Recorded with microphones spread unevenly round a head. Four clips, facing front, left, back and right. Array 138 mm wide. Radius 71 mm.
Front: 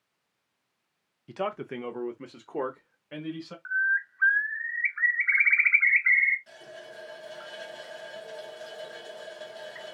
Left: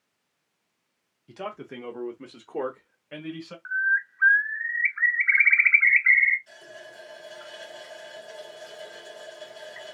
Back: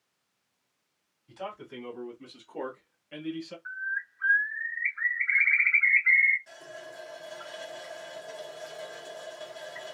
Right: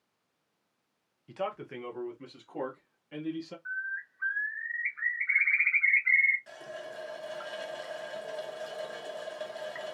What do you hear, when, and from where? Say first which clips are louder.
1.3 s a man speaking: right 1 dB, front 7 dB; 10° left, 0.8 m; by 3.5 s 55° left, 1.7 m
3.6 s a bird: left 11 dB, front 11 dB; 55° left, 0.9 m
6.5 s a running tap: right 3 dB, back 1 dB; 85° right, 1.2 m